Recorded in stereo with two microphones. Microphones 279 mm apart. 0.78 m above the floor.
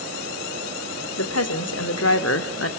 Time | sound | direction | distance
1.2 | a woman speaking | 65° left (ahead or behind) | 3 m